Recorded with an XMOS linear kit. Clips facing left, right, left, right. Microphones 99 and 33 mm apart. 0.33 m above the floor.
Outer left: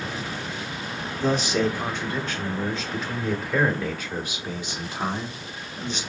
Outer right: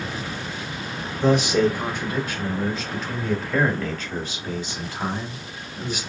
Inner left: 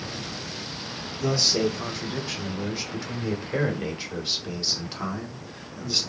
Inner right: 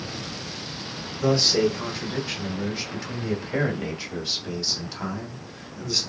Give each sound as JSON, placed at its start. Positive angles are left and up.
{"t": 1.2, "sound": "a man speaking", "side_deg": -15, "distance_m": 1.9}